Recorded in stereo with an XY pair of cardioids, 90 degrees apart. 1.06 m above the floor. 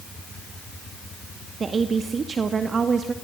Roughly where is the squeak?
No squeak in this recording.